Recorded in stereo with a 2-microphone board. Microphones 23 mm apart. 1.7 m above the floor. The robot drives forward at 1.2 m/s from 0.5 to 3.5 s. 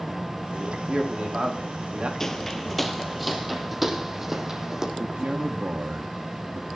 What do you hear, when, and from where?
0.5 s a man speaking: 35° right (ahead or behind), 5.5 m; by 2.1 s 50° right (ahead or behind), 4.5 m
2.2 s footsteps: 20° left (ahead or behind), 1.7 m; by 4.9 s 20° right (ahead or behind), 3.5 m
5.0 s a man speaking: 80° right, 2.5 m